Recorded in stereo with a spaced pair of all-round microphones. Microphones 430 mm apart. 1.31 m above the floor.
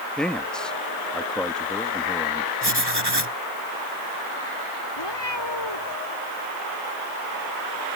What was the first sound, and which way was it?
A man speaking, centre (ahead or behind).